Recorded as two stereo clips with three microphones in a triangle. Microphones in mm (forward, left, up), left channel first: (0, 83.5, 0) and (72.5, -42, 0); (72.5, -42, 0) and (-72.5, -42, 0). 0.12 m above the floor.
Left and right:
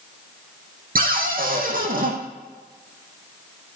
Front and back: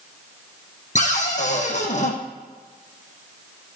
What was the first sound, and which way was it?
A cupboard door, 40° right.